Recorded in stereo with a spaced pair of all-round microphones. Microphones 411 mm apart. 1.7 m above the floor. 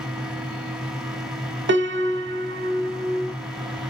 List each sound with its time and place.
0.0 s a fan: centre (ahead or behind), 0.8 m
1.7 s a piano: 30° right (ahead or behind), 0.7 m